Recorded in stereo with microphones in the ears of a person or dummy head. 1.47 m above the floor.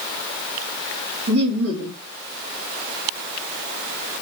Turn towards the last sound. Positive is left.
turn(degrees=-75)  # may be behind; listen again after turning